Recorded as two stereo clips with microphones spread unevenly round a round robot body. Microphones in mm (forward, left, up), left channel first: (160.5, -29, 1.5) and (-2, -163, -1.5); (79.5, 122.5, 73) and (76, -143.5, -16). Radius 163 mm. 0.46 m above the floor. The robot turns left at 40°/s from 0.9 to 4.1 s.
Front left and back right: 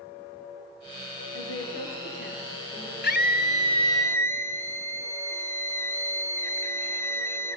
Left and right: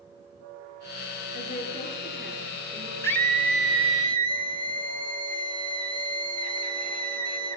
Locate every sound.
1.3 s a woman speaking: 35° left, 8.5 m; by 2.9 s 30° right, 8.5 m
3.0 s a scream: 5° left, 2.5 m; by 7.6 s 40° right, 2.5 m